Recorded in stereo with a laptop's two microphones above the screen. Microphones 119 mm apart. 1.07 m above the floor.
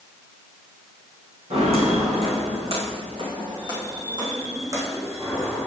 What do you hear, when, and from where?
1.5 s footsteps: 60° right (ahead or behind), 3.5 m; by 5.7 s 20° right (ahead or behind), 3 m